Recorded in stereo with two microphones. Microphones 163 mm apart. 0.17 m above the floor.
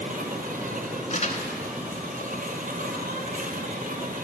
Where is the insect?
60° right (ahead or behind), 0.9 m.